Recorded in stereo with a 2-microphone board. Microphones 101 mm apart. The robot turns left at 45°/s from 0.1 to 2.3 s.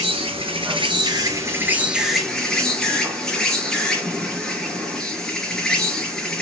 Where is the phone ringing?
No phone ringing in this recording.